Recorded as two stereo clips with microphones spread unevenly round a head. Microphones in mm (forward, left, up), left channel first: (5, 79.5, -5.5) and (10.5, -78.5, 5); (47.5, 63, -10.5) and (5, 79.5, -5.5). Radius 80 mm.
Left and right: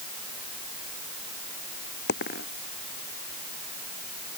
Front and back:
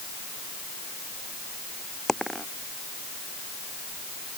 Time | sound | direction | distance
2.1 | a dropped coin | 65° left | ?